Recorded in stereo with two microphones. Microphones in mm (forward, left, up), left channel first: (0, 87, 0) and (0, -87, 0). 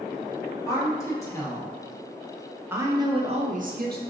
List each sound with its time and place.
0.7 s a woman speaking: 20° left (ahead or behind), 1.9 m; by 4.0 s 65° right (ahead or behind), 0.8 m